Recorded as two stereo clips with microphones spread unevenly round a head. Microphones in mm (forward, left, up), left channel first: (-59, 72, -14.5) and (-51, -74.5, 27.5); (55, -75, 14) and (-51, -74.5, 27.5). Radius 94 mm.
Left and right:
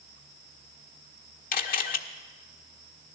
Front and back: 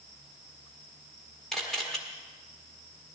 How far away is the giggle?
No giggle in this recording.